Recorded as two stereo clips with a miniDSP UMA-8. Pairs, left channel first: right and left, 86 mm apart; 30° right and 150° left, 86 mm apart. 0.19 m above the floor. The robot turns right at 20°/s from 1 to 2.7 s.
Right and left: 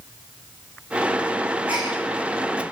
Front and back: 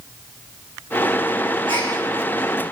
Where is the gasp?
165° left, 8 m; by 1.9 s 170° left, 8 m.